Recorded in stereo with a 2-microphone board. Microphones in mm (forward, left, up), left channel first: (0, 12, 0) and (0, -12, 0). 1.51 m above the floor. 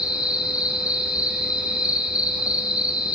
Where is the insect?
80° right, 3 m.